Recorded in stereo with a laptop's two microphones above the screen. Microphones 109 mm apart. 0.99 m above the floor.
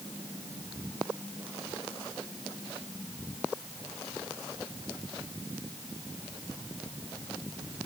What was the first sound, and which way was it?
Only background noise.